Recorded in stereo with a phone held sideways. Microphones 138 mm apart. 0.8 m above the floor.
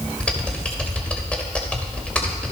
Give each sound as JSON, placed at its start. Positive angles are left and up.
{"t": 0.2, "sound": "typing on a keyboard", "side_deg": 10, "distance_m": 2.5}